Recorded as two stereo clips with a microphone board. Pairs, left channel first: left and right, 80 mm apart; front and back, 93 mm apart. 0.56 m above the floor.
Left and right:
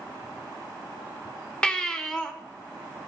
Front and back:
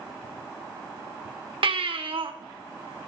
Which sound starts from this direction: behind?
A baby crying, at 1.6 s.